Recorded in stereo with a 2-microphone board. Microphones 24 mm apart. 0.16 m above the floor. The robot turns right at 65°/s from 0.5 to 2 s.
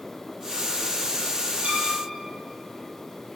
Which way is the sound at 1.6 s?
65° right (ahead or behind).